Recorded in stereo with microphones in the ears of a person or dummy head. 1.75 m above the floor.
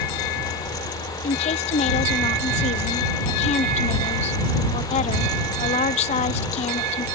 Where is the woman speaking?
35° left (ahead or behind).